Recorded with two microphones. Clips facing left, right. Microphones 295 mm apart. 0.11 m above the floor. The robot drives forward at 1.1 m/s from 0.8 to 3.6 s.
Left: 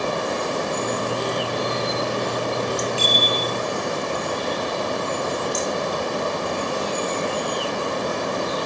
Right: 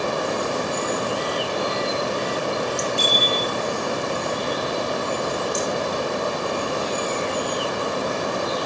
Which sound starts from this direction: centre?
A bicycle bell, at 3.0 s.